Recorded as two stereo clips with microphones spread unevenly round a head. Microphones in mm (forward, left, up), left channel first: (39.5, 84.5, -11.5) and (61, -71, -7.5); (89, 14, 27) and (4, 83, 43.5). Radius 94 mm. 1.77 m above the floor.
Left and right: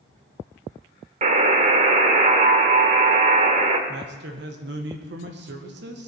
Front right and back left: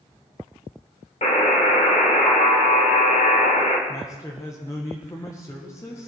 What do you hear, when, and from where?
1.2 s a buzzer: 95° right, 1.9 m
3.9 s a man speaking: 115° right, 1.8 m